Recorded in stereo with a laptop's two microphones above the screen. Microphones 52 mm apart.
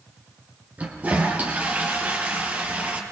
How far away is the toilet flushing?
About 4.5 m.